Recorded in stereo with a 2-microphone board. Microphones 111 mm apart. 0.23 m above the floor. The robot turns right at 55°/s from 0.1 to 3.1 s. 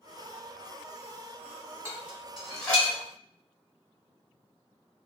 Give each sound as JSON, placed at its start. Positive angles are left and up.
{"t": 1.9, "sound": "dishes clattering", "side_deg": -20, "distance_m": 1.2}